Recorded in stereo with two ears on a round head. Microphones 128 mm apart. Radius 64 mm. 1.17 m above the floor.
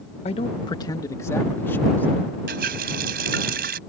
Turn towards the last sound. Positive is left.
turn(degrees=-70)  # may be behind; listen again after turning